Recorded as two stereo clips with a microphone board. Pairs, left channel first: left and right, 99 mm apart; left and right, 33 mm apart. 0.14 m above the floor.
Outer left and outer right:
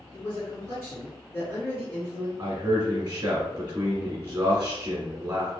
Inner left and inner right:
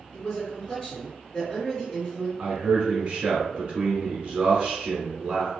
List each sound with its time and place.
0.1 s a man speaking: 25° left (ahead or behind), 1.8 m
2.4 s a man speaking: 20° right (ahead or behind), 1.3 m